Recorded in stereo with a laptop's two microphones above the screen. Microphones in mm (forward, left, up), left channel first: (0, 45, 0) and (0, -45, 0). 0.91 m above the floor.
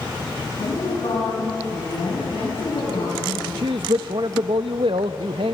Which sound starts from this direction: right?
A man speaking, at 3.6 s.